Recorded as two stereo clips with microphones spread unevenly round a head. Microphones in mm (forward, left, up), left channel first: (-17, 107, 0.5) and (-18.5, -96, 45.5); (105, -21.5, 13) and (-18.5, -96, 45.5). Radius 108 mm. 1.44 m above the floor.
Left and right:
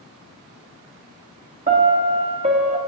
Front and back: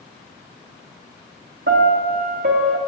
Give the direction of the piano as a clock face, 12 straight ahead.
5 o'clock.